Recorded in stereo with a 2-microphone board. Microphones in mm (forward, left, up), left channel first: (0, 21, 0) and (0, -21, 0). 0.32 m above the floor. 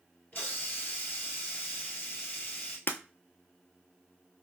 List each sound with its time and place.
0.3 s a hiss: 40° left (ahead or behind), 2 m
2.9 s breaking glass: 50° left (ahead or behind), 0.6 m